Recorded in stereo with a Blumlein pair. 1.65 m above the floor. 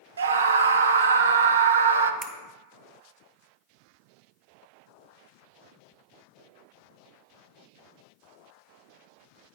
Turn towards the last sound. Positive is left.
turn(degrees=-5)